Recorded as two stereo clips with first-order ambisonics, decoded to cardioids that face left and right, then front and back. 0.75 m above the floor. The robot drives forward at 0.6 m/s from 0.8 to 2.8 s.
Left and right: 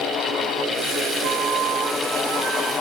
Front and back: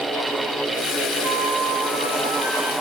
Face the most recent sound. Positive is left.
turn(degrees=-145)